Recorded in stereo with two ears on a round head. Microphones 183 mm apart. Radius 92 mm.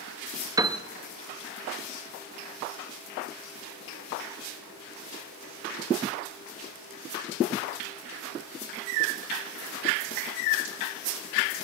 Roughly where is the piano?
Centre.